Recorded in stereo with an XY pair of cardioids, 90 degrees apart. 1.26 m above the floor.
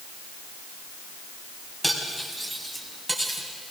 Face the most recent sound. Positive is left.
turn(degrees=-10)